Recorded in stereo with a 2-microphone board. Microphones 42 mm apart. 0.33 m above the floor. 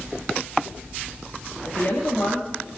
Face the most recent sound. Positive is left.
turn(degrees=55)  # may be behind; listen again after turning